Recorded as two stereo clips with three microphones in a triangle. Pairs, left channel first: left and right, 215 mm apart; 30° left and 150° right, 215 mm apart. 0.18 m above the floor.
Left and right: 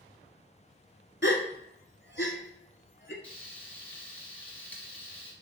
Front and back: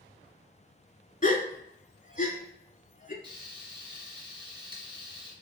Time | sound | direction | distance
1.2 | a gasp | 75° left | 0.8 m
3.2 | frying | 165° left | 1.4 m